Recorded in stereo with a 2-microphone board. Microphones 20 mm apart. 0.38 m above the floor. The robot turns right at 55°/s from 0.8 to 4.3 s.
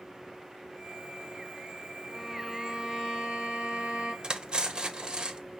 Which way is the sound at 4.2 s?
40° right (ahead or behind).